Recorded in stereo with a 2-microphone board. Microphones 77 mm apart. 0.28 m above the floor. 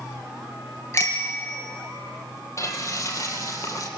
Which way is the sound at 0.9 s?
35° left (ahead or behind).